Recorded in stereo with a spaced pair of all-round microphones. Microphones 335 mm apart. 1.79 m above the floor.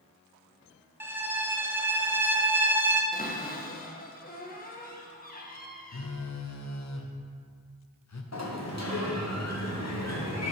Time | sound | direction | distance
1.0 | a violin | 5° right (ahead or behind) | 0.5 m
3.1 | a cupboard door | 25° left (ahead or behind) | 0.8 m
5.9 | a phone buzzing | 50° left (ahead or behind) | 0.6 m
8.3 | a sliding door | 50° left (ahead or behind) | 1.1 m